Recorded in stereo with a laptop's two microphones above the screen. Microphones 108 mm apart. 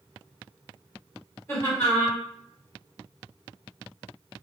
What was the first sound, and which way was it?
Laughter, 30° left (ahead or behind).